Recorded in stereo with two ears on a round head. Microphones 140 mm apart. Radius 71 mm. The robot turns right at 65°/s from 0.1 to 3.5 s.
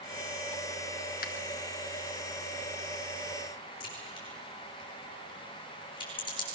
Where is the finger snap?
70° left (ahead or behind), 1.6 m; by 1.3 s 65° left (ahead or behind), 1.6 m.